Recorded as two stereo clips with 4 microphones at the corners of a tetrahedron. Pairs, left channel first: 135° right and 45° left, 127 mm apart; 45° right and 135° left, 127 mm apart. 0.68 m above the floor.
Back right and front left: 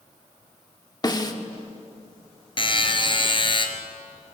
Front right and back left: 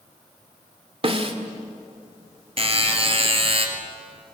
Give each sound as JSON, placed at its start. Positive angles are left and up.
{"t": 1.0, "sound": "a snare drum", "azimuth_deg": 170, "distance_m": 1.8}
{"t": 2.6, "sound": "a buzzer", "azimuth_deg": 175, "distance_m": 2.5}